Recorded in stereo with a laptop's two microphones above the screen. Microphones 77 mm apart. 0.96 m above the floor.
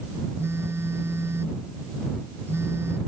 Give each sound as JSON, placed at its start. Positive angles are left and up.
{"t": 0.4, "sound": "a phone buzzing", "side_deg": -30}